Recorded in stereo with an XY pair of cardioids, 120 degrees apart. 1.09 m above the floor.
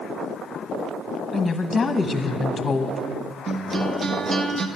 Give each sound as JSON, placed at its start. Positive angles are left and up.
{"t": 1.3, "sound": "a woman speaking", "azimuth_deg": 25, "distance_m": 1.1}
{"t": 3.5, "sound": "a guitar", "azimuth_deg": -30, "distance_m": 0.9}